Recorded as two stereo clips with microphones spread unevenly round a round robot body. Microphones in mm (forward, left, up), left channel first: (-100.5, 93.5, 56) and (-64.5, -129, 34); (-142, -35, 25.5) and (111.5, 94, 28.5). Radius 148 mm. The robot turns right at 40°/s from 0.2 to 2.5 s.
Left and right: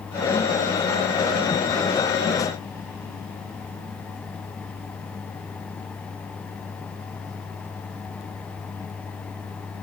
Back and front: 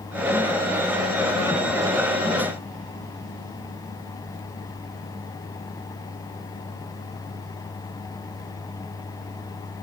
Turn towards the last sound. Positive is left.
No sound to turn to.